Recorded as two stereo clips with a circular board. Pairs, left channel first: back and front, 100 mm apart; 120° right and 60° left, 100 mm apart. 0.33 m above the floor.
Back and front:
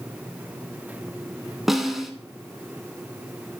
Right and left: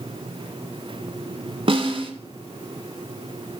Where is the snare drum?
90° left, 0.9 m.